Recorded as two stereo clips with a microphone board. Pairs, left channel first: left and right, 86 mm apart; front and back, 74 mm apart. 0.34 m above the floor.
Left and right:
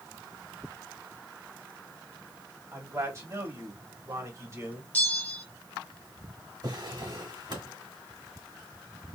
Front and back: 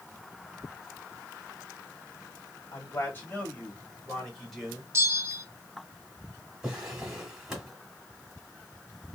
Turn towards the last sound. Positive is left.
turn(degrees=-100)